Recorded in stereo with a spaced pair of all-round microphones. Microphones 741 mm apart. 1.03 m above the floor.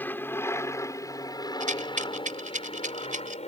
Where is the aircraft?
5° left (ahead or behind); by 3.5 s 10° left (ahead or behind).